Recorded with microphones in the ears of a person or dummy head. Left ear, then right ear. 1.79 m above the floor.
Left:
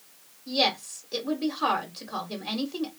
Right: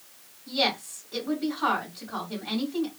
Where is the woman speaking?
40° left (ahead or behind), 1.1 m.